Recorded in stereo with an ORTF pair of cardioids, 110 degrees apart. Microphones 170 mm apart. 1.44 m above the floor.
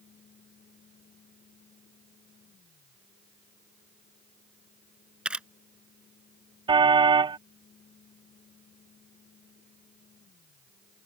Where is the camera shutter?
5° right.